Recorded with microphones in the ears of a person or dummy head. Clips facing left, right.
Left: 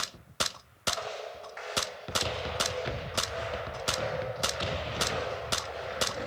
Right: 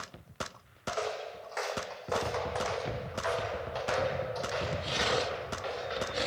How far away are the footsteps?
About 3 m.